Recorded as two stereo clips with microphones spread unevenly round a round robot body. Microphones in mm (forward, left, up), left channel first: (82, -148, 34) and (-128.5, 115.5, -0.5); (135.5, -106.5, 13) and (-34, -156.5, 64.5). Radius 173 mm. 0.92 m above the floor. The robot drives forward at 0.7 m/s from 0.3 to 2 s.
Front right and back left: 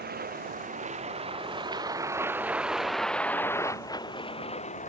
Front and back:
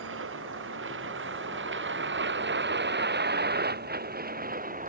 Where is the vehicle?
165° right; by 4.9 s 120° right.